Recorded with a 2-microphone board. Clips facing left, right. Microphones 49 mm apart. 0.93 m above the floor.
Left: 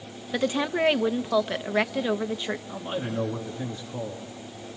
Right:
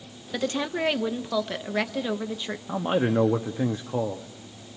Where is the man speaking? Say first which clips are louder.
Right 7 dB; 45° right (ahead or behind), 1.2 m.